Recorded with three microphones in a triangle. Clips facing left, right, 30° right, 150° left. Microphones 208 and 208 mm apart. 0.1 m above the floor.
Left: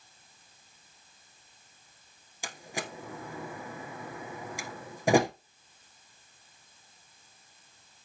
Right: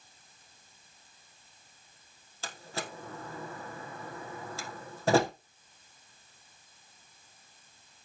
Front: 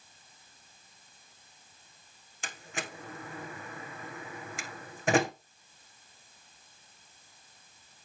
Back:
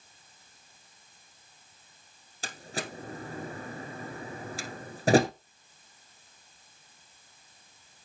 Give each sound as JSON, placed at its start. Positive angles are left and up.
{"t": 2.4, "sound": "a door slam", "azimuth_deg": 155, "distance_m": 1.2}